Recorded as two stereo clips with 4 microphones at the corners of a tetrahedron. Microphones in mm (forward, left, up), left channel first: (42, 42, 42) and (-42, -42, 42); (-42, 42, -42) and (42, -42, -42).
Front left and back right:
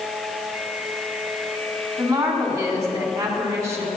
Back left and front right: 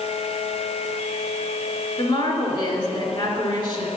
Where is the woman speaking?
170° left, 2.5 m.